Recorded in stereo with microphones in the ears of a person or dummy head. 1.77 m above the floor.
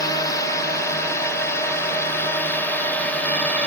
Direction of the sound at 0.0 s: 15° left (ahead or behind).